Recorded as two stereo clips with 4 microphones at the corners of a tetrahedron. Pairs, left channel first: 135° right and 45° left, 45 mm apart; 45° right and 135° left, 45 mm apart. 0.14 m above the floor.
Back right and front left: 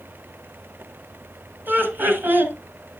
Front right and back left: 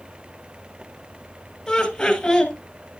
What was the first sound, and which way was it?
Laughter, 35° left.